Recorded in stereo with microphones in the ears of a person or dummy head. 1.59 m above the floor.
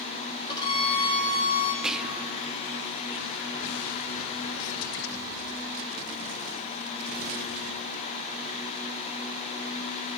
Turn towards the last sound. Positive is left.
turn(degrees=-5)  # may be behind; listen again after turning